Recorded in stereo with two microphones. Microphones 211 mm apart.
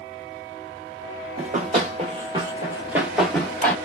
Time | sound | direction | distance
1.4 | running footsteps | 35° right (ahead or behind) | 1.6 m